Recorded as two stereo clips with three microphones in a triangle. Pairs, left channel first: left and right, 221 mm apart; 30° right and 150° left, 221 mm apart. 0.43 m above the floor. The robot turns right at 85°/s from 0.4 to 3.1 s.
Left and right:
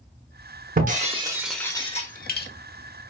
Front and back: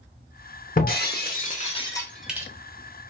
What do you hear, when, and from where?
0.8 s breaking glass: 65° right, 0.6 m; by 2.5 s 80° left, 0.6 m